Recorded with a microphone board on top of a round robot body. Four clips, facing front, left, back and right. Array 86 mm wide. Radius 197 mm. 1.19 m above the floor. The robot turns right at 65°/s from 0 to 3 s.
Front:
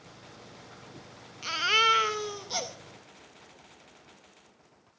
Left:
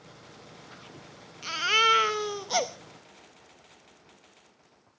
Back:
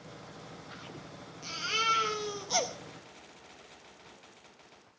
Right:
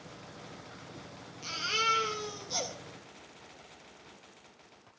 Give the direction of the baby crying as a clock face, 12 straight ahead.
11 o'clock.